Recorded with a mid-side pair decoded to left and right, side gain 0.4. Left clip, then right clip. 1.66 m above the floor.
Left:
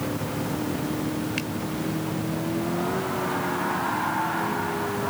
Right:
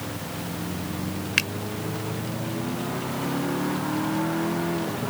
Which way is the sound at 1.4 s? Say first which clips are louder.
Right 13 dB; 65° right.